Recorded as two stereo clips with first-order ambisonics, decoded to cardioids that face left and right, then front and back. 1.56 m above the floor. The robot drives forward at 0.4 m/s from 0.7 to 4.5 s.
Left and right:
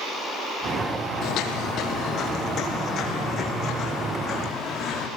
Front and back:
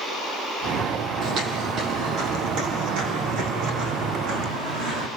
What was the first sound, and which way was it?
Footsteps, 125° left.